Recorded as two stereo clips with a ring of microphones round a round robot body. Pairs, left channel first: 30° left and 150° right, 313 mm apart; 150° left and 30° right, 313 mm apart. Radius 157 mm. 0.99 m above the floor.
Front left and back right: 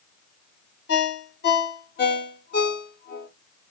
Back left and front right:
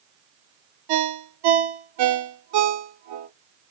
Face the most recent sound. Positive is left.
turn(degrees=-30)